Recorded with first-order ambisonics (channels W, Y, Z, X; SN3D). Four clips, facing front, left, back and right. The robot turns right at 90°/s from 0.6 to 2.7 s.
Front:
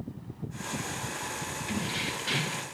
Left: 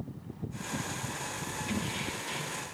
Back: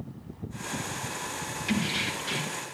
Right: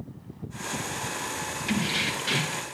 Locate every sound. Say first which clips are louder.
1.7 s keys jangling: right 10 dB, back 5 dB; 130° right, 0.8 m; by 2.6 s 45° right, 0.8 m